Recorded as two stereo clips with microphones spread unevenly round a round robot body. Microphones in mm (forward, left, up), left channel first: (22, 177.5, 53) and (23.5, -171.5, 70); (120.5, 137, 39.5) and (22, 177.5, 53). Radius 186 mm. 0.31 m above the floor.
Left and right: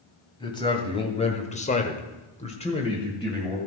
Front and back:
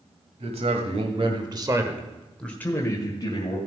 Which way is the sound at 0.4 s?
165° left.